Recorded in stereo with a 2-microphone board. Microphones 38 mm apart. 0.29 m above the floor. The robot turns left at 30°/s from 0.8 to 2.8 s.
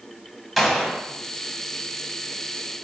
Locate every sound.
0.6 s a gunshot: 5° left (ahead or behind), 1.3 m; by 1.1 s 5° right (ahead or behind), 1.3 m